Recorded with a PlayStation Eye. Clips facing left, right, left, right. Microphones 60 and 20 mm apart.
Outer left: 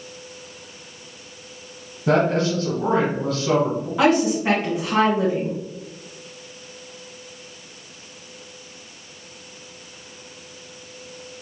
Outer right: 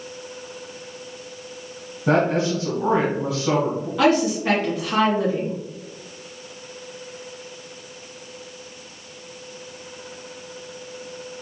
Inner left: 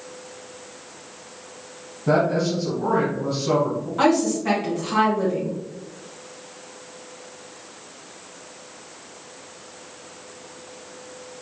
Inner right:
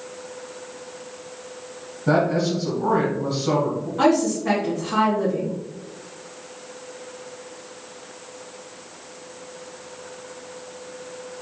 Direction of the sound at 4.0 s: 20° left (ahead or behind).